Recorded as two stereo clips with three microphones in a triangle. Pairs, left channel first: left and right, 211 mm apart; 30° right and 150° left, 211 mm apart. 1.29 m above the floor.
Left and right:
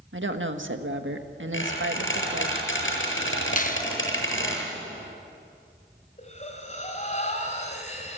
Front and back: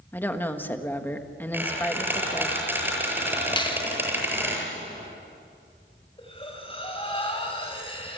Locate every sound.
0.1 s a woman speaking: 110° right, 1.6 m
1.5 s a squeak: 70° left, 7.5 m
3.6 s a finger snap: 40° left, 1.1 m
6.2 s breathing: 35° left, 4 m